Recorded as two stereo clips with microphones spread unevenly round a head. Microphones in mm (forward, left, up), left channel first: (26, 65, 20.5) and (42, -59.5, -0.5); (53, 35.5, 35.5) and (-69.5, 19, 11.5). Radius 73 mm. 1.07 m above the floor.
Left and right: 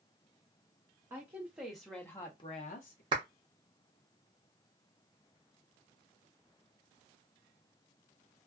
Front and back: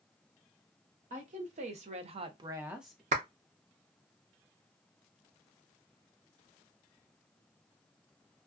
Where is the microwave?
I don't hear a microwave.